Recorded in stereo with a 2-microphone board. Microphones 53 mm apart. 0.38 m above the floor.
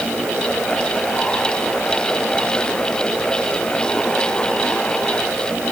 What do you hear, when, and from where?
Only background noise.